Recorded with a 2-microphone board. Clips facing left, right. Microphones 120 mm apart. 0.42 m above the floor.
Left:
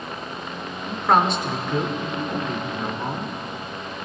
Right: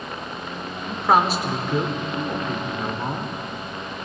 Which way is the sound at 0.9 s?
5° right (ahead or behind).